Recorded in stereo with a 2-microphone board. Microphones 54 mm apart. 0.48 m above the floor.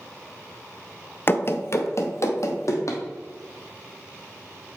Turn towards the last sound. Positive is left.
turn(degrees=60)  # may be behind; listen again after turning